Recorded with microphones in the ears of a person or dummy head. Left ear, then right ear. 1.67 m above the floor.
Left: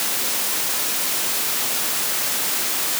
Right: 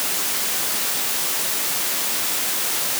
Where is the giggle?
I don't hear a giggle.